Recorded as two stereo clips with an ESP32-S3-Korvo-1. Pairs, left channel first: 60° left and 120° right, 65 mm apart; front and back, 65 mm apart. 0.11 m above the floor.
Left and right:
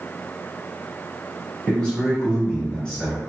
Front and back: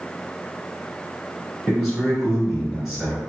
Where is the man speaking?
105° left, 1.5 m.